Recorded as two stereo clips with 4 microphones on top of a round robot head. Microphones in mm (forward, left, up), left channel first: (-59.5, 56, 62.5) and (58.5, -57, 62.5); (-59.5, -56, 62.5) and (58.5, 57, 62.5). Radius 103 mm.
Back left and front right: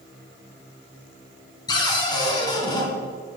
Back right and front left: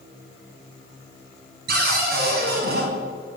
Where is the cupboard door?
70° left, 2 m.